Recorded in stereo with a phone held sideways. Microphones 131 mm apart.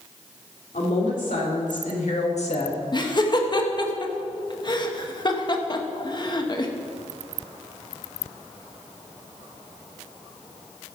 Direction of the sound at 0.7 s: 90° left.